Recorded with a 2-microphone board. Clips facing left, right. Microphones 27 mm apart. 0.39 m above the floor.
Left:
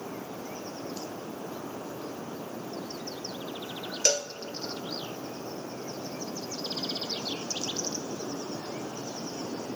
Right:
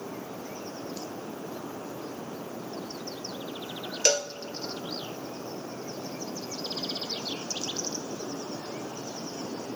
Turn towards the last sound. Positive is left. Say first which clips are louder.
# right 2 dB
turn(degrees=-30)  # may be behind; listen again after turning